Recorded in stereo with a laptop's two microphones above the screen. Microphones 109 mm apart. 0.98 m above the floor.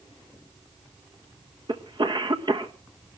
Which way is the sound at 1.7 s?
50° right (ahead or behind).